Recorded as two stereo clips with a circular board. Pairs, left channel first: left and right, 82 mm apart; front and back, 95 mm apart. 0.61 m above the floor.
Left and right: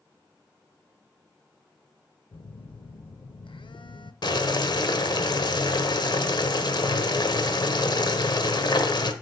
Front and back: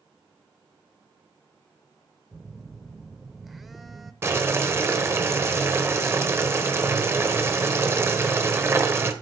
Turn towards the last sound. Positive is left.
turn(degrees=115)